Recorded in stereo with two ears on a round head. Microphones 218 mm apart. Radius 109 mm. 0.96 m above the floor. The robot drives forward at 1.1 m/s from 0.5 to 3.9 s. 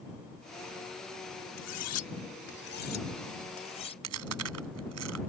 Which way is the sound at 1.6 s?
85° left.